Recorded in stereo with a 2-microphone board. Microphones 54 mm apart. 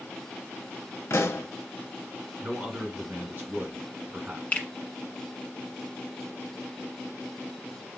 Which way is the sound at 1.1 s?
60° left (ahead or behind).